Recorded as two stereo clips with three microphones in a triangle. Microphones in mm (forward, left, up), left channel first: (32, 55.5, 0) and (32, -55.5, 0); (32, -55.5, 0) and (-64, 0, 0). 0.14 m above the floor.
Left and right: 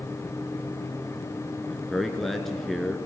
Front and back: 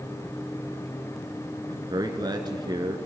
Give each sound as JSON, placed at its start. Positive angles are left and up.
{"t": 1.7, "sound": "a man speaking", "azimuth_deg": 180, "distance_m": 1.9}